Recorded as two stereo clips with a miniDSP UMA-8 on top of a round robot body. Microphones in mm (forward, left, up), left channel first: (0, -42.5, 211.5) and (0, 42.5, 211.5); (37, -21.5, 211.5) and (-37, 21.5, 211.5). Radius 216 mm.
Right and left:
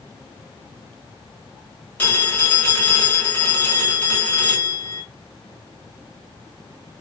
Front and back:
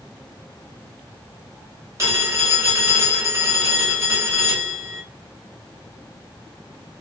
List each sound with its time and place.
2.0 s a phone ringing: 155° right, 2 m